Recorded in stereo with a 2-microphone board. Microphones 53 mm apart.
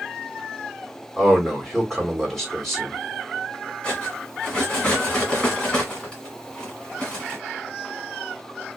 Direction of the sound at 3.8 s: 20° left (ahead or behind).